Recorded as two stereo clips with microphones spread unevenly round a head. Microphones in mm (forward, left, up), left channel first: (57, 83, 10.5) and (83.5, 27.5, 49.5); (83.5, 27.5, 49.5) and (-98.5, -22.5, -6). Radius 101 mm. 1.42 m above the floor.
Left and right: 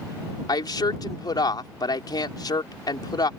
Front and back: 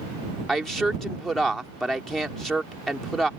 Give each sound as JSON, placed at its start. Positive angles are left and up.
{"t": 0.5, "sound": "a woman speaking", "azimuth_deg": 105}